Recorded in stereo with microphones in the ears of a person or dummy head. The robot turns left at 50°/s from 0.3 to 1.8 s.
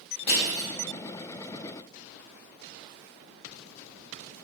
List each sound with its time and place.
0.3 s crushing: 30° left (ahead or behind), 1.9 m; by 0.7 s 50° left (ahead or behind), 1.9 m